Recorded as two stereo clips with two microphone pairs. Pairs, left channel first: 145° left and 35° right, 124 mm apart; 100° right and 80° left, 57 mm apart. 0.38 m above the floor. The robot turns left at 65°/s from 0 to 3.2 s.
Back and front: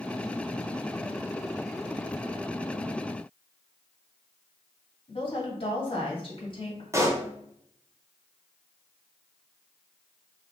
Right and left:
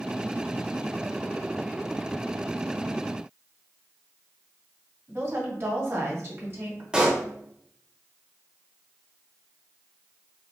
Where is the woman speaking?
110° left, 1.9 m.